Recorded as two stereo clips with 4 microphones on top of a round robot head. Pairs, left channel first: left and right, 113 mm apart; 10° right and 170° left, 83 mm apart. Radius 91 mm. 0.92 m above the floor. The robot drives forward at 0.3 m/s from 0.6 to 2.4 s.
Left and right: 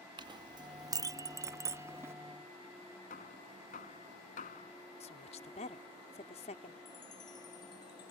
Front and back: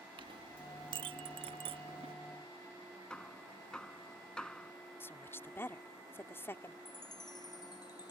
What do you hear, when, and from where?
0.2 s a clink: 140° right; by 2.1 s 160° right
3.1 s hammering: 70° left
5.0 s a woman speaking: 55° left
6.8 s a chime: 30° left